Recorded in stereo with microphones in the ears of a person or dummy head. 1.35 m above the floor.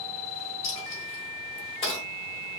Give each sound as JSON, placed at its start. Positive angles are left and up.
{"t": 0.6, "sound": "a dropped coin", "side_deg": 35, "distance_m": 1.4}